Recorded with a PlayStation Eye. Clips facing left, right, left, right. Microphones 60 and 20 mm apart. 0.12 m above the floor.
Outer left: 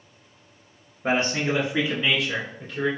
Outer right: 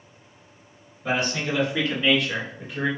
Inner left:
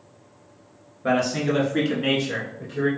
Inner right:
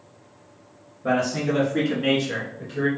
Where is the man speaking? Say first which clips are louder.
Outer left 2 dB, inner left 1 dB; 45° left (ahead or behind), 1.8 m; by 2.9 s 20° right (ahead or behind), 1.7 m.